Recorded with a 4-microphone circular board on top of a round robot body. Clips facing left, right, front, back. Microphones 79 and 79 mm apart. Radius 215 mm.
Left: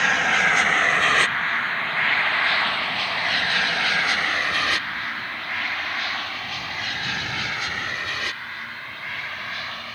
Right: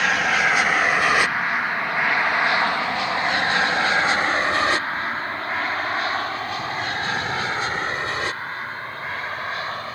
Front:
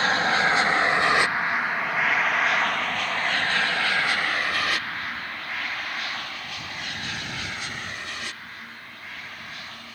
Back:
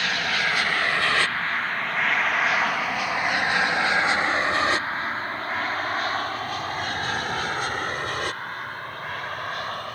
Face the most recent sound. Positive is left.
turn(degrees=-150)